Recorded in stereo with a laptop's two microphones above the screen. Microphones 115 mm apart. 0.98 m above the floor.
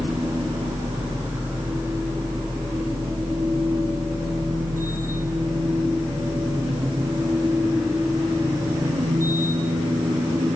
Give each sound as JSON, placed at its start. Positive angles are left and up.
{"t": 0.0, "sound": "a machine running", "side_deg": -25, "distance_m": 2.0}